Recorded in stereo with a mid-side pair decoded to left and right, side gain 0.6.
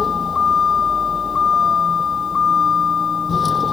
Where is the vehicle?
30° left.